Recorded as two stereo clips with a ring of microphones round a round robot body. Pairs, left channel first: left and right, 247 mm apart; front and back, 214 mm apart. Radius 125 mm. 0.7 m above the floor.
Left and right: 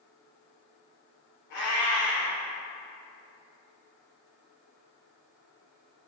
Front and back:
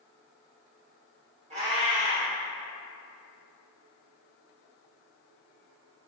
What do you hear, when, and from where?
1.5 s a cat meowing: 120° left, 1.0 m